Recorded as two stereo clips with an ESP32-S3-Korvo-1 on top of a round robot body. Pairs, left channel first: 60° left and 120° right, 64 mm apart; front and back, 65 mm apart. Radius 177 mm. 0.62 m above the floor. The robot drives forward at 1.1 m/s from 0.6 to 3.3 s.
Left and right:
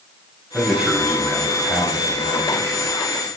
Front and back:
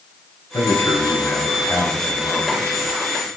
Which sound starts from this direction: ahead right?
A man speaking, at 0.5 s.